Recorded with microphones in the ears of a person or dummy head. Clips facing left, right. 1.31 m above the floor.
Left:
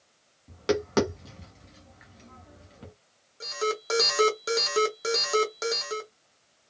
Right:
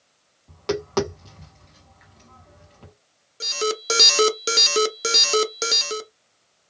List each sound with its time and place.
0.5 s tapping: 15° left (ahead or behind), 1.1 m
3.4 s an alarm: 35° right (ahead or behind), 0.6 m